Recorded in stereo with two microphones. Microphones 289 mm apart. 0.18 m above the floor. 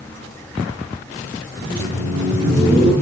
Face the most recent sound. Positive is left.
turn(degrees=-30)  # may be behind; listen again after turning